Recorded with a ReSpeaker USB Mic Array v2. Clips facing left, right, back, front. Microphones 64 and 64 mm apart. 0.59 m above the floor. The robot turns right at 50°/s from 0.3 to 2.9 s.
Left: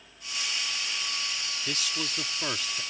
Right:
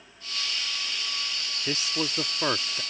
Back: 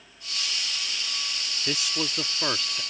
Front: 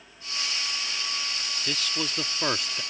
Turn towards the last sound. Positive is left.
turn(degrees=-55)